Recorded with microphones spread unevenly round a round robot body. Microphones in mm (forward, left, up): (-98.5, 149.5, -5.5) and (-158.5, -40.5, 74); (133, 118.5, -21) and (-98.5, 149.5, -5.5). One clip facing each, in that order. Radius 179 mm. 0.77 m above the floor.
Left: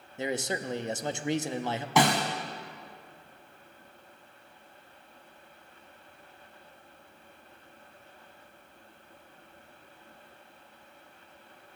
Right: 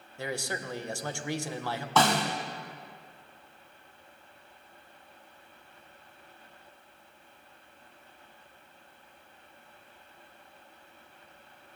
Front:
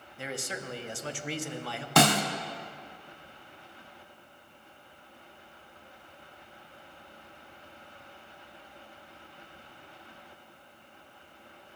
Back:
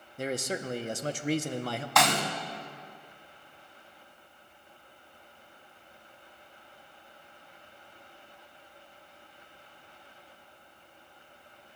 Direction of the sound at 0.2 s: 125° left.